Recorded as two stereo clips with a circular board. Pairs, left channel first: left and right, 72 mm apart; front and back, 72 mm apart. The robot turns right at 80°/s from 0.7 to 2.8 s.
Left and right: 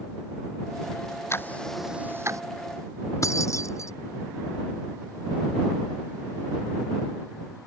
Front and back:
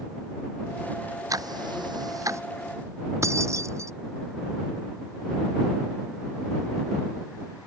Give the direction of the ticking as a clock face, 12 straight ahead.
7 o'clock.